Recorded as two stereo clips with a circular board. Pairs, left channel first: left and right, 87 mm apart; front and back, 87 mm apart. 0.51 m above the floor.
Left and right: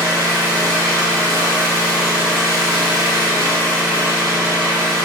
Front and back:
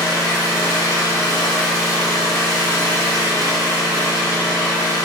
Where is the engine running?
40° right, 1.5 m.